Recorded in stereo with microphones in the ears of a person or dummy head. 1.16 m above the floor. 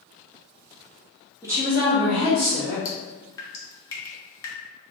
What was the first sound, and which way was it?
A woman speaking, 20° right (ahead or behind).